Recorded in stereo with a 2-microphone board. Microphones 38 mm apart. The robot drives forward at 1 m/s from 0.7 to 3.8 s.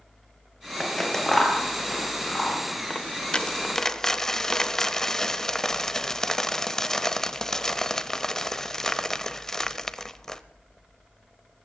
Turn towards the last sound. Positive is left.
turn(degrees=10)  # may be behind; listen again after turning